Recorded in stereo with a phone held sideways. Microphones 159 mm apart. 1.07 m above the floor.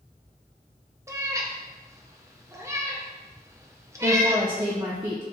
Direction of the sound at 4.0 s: 25° right (ahead or behind).